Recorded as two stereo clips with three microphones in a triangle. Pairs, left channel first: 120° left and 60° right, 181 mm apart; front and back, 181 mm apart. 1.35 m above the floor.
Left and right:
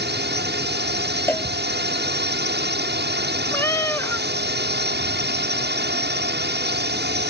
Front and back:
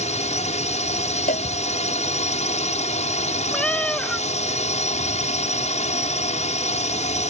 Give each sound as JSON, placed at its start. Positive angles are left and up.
{"t": 0.0, "sound": "a drone", "azimuth_deg": -50}
{"t": 1.3, "sound": "a cowbell", "azimuth_deg": 40}
{"t": 3.5, "sound": "a cat meowing", "azimuth_deg": 75}